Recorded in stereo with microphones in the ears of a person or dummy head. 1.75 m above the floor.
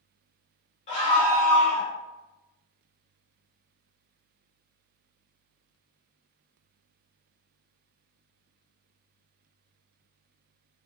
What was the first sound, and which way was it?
A scream, 35° left (ahead or behind).